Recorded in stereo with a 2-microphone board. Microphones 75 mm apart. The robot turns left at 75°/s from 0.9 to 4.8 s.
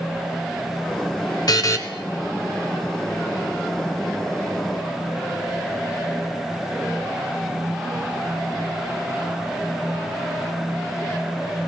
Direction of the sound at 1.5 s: 55° left (ahead or behind).